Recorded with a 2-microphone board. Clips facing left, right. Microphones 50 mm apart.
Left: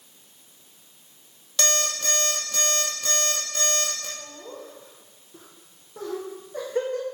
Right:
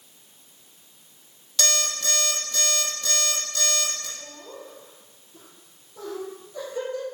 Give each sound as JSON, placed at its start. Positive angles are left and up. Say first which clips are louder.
{"t": 1.6, "sound": "an alarm clock", "louder": "left 1 dB", "side_deg": 40, "distance_m": 2.5}
{"t": 4.2, "sound": "laughter", "louder": "left 1 dB", "side_deg": 50, "distance_m": 2.5}